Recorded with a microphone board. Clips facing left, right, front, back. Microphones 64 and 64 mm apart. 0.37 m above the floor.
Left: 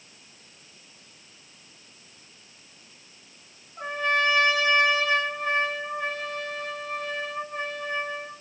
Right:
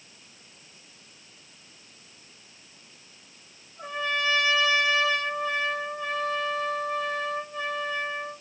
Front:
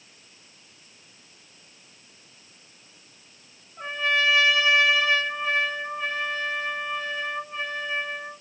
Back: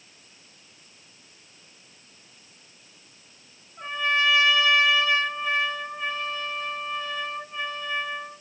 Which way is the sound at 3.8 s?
70° left.